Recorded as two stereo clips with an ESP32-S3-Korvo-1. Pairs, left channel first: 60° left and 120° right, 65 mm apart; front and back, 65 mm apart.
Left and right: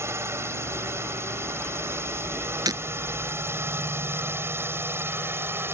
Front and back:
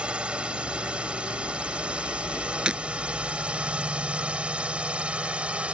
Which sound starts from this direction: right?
Breaking glass, at 2.7 s.